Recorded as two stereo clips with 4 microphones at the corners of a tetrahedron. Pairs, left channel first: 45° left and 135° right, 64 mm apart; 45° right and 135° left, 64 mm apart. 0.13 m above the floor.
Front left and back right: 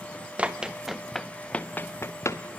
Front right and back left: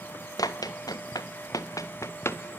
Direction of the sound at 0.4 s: 65° right.